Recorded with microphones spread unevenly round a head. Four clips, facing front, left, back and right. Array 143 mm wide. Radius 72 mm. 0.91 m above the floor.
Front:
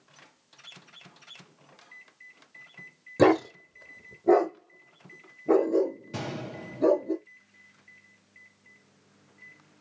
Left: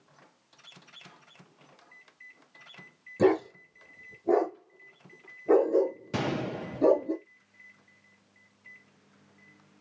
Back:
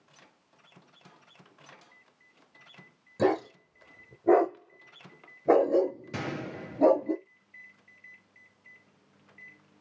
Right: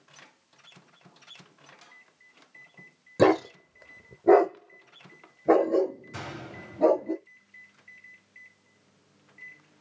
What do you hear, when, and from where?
3.2 s a dog barking: 45° right, 1.0 m; by 7.1 s 150° right, 1.9 m
6.1 s a gunshot: 95° left, 0.5 m